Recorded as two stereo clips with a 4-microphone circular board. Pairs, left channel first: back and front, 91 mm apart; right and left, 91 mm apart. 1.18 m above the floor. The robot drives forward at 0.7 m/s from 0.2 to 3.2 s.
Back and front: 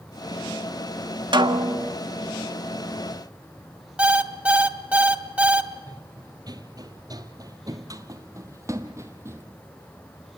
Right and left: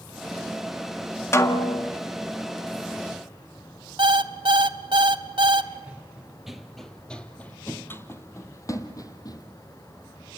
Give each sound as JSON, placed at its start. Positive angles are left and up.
{"t": 1.3, "sound": "a snare drum", "azimuth_deg": -30, "distance_m": 1.8}
{"t": 4.0, "sound": "an alarm clock", "azimuth_deg": 75, "distance_m": 1.4}
{"t": 5.9, "sound": "running footsteps", "azimuth_deg": 20, "distance_m": 1.7}